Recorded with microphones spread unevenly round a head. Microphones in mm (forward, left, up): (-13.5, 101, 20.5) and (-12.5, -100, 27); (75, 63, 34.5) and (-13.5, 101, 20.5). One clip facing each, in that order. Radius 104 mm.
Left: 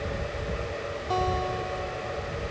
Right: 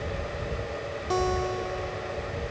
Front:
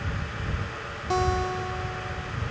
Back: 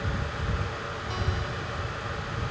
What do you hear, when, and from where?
1.1 s a guitar: 25° right